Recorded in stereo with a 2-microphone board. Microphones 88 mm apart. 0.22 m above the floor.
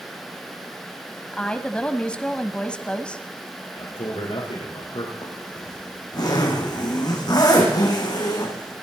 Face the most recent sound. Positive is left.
turn(degrees=50)  # may be behind; listen again after turning